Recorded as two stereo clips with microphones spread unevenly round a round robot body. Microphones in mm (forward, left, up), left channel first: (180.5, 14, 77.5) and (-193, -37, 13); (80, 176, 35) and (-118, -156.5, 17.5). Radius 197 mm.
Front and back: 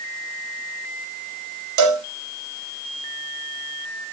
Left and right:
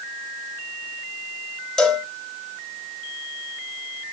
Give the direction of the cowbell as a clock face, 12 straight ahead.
7 o'clock.